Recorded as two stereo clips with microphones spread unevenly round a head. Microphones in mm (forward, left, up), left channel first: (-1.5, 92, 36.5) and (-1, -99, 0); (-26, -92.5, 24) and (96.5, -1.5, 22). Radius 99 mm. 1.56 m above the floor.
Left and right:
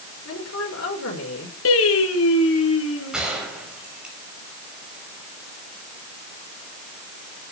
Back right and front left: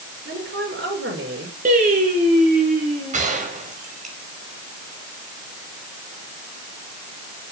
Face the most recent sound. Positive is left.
turn(degrees=0)